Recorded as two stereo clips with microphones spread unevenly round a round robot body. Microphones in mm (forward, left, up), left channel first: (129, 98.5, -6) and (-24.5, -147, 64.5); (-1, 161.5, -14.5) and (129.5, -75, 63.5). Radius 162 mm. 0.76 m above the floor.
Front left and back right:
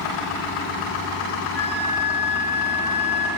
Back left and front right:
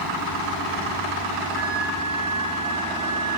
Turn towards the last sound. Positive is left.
turn(degrees=-30)